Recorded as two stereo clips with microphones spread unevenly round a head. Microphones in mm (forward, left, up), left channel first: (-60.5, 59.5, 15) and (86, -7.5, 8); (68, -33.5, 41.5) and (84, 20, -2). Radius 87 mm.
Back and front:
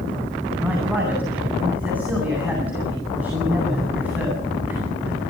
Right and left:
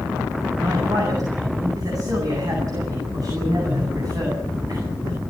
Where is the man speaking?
55° left, 9.5 m.